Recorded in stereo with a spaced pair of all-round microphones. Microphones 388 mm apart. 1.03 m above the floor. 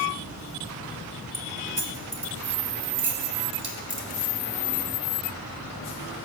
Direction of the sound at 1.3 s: 50° right (ahead or behind).